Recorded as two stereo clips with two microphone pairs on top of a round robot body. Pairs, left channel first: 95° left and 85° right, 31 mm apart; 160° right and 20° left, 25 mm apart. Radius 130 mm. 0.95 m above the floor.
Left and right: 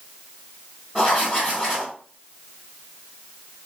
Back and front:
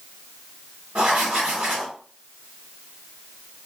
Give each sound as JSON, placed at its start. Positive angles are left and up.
{"t": 0.9, "sound": "writing", "azimuth_deg": -15, "distance_m": 0.8}